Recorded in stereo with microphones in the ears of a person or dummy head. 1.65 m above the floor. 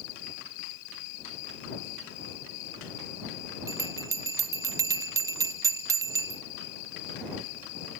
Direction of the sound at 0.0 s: 70° left (ahead or behind).